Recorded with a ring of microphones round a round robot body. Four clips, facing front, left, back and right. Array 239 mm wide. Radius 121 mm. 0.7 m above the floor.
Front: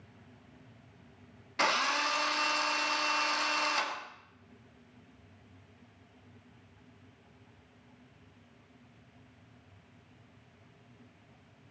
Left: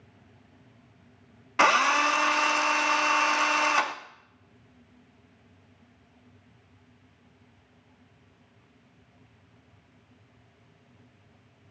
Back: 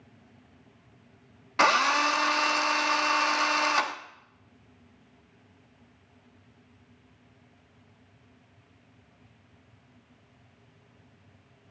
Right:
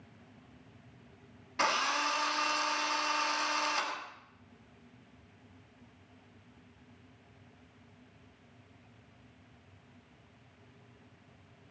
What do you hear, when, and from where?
1.6 s a drill: 125° left, 1.5 m